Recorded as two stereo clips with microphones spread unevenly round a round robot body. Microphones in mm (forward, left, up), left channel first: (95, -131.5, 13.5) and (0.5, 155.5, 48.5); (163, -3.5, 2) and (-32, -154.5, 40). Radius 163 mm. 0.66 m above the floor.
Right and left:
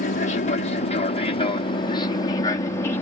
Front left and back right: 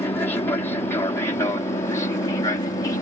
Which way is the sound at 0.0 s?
30° right.